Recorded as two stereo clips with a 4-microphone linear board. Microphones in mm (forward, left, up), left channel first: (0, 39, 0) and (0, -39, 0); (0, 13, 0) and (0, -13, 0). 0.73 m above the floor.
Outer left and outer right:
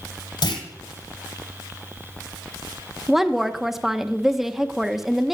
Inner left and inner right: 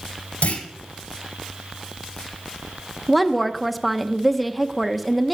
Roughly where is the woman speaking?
Centre.